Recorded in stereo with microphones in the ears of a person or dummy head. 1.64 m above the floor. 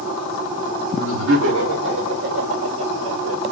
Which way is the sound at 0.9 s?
70° right (ahead or behind).